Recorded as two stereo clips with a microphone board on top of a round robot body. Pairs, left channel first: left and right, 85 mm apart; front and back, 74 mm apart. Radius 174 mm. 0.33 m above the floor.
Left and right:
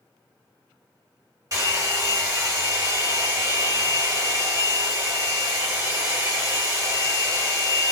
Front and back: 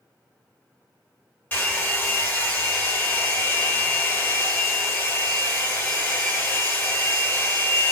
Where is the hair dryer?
55° right, 2 m.